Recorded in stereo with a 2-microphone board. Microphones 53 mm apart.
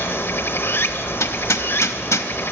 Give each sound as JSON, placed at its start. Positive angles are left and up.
{"t": 0.0, "sound": "running water", "side_deg": 55, "distance_m": 0.8}
{"t": 1.2, "sound": "hammering", "side_deg": 85, "distance_m": 0.7}